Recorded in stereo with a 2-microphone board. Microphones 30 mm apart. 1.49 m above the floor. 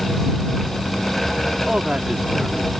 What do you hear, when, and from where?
1.7 s a man speaking: 30° right (ahead or behind)